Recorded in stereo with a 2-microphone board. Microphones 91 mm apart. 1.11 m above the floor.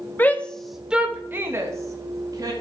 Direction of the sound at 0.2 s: 20° left (ahead or behind).